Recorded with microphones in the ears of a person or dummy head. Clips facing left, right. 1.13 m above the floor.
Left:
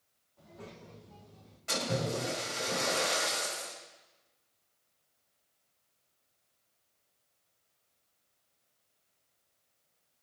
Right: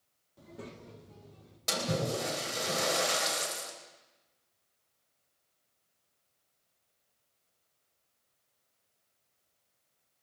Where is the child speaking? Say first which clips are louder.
Right 3 dB; 45° right (ahead or behind), 1.7 m; by 1.6 s 35° right (ahead or behind), 3 m.